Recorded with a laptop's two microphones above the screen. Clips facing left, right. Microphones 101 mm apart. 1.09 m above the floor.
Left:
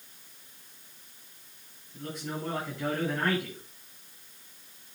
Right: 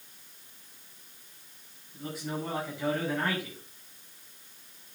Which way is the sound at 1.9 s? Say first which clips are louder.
Right 1 dB; 5° right (ahead or behind).